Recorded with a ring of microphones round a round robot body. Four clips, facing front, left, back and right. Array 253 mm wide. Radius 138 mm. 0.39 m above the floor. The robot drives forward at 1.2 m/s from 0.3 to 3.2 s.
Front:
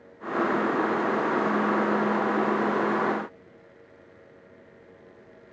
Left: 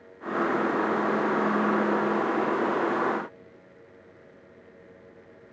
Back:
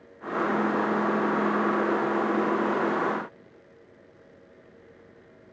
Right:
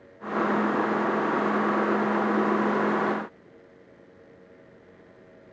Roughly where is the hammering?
I don't hear hammering.